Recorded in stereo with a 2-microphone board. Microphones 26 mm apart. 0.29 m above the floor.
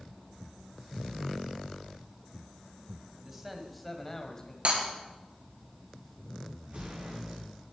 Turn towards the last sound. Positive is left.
turn(degrees=-55)  # may be behind; listen again after turning